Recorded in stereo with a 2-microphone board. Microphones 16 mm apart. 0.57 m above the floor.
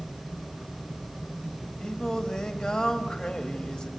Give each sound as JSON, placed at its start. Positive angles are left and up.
{"t": 1.8, "sound": "singing", "side_deg": 70, "distance_m": 1.3}